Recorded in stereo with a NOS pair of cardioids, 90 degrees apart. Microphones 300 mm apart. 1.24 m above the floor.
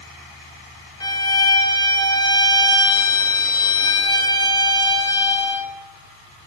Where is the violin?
15° left, 0.6 m.